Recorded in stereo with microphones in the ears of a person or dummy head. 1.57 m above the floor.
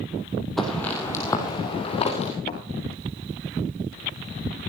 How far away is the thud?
About 1.9 m.